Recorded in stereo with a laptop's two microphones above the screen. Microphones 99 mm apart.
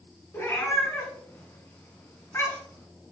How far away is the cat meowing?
About 1.9 m.